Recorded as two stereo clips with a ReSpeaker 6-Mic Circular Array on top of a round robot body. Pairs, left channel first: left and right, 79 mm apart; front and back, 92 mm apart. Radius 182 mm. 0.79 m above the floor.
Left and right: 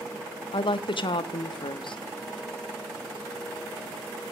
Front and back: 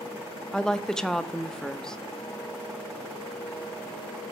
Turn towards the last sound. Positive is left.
turn(degrees=85)